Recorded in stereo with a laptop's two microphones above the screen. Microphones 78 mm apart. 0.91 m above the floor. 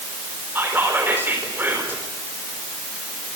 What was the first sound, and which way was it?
Whispering, 25° right (ahead or behind).